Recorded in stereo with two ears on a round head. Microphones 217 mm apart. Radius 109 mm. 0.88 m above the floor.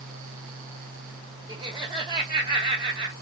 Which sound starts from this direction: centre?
Laughter, at 1.5 s.